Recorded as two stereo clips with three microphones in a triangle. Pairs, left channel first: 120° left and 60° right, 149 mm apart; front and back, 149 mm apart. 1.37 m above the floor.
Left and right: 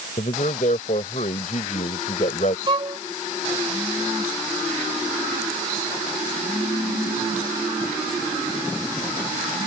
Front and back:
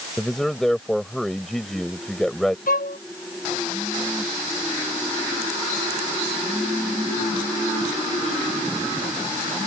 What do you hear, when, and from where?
0.2 s a man speaking: 85° left
2.7 s a violin: 5° right